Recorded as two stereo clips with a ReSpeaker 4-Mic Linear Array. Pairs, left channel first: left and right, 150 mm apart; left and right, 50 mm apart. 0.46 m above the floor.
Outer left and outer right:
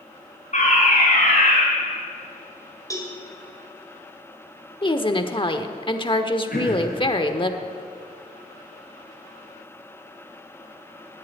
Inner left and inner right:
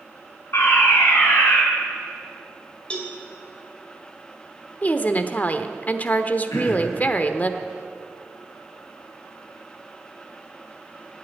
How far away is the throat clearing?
About 5 m.